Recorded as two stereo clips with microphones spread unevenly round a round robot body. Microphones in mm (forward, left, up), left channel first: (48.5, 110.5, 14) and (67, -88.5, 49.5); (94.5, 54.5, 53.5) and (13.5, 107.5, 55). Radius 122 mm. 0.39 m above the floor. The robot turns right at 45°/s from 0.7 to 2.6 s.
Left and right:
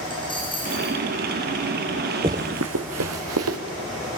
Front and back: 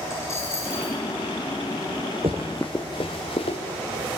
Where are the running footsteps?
150° right, 1.1 m; by 3.6 s 90° right, 2 m.